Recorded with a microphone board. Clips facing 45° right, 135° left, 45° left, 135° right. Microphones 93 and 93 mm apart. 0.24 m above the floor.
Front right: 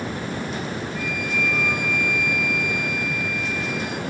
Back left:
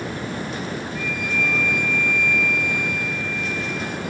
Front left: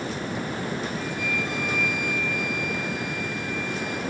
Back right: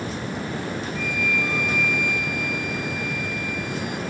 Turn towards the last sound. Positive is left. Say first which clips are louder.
# back left 1 dB, back right 3 dB
turn(degrees=30)